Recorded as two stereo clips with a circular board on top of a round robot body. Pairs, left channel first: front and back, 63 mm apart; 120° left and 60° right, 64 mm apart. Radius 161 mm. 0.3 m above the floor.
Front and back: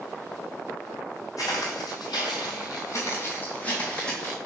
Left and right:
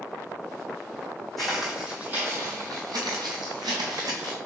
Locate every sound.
1.4 s footsteps: 30° left, 1.2 m; by 4.4 s 85° right, 1.5 m